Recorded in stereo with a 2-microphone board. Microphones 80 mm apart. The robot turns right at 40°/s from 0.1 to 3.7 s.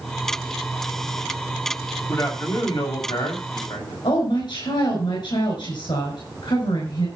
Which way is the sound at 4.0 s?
75° left (ahead or behind).